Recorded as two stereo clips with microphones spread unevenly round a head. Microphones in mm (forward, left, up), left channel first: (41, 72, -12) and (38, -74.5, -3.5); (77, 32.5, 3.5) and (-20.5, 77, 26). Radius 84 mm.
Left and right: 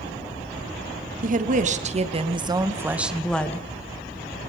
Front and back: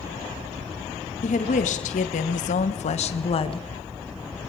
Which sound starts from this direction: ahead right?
A woman speaking, at 1.2 s.